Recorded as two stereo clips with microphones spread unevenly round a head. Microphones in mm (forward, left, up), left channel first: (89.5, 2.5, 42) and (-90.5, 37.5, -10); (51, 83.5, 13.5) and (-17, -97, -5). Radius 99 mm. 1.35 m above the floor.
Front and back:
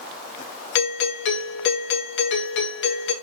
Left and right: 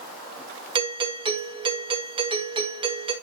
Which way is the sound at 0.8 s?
50° right.